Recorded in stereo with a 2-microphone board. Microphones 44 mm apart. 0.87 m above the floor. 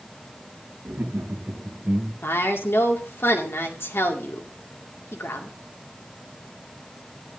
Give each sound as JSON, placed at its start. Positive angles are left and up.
{"t": 0.8, "sound": "laughter", "side_deg": -70, "distance_m": 2.0}
{"t": 2.2, "sound": "a woman speaking", "side_deg": 65, "distance_m": 2.0}